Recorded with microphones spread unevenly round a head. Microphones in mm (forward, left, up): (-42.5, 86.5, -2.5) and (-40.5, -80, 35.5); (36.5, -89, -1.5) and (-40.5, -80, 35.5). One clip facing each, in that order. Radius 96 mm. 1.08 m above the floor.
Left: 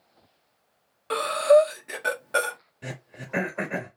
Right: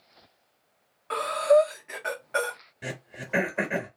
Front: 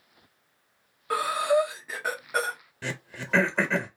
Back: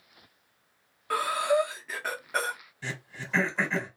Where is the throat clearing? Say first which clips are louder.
Right 2 dB, front 3 dB; 30° right, 1.0 m.